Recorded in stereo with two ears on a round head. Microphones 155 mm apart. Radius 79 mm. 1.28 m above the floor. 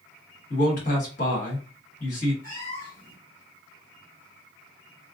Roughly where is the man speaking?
Left.